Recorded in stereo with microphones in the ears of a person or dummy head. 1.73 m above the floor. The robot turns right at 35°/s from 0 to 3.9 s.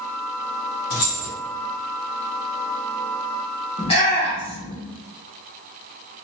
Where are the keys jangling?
45° left (ahead or behind), 1.0 m.